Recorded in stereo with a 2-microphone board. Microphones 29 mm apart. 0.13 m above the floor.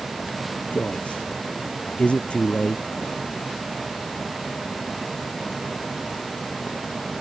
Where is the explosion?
No explosion in this recording.